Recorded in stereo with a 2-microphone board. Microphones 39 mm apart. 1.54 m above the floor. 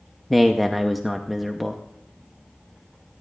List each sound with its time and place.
0.3 s a man speaking: centre (ahead or behind), 0.7 m